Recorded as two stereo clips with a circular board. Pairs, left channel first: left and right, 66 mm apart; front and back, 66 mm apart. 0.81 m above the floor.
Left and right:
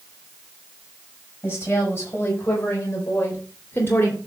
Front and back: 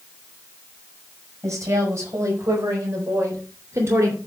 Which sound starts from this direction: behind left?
A woman speaking, at 1.4 s.